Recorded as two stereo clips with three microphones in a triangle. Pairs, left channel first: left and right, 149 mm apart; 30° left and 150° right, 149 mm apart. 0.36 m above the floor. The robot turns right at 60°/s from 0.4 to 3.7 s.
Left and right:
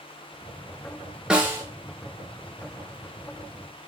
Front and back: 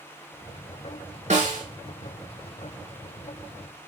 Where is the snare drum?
175° right, 0.6 m; by 1.6 s 155° right, 0.6 m.